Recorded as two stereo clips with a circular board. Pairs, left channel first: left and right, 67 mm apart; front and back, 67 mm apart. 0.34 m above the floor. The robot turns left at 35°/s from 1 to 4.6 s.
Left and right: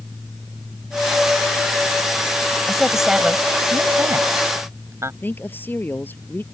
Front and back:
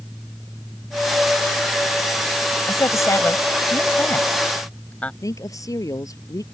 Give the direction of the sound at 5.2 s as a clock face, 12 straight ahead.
11 o'clock.